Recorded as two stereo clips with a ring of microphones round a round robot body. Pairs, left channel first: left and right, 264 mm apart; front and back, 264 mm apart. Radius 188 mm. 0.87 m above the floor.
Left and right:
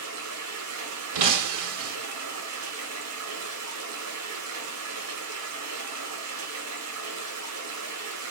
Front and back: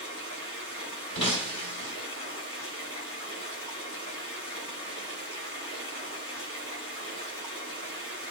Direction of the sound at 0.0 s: 85° right.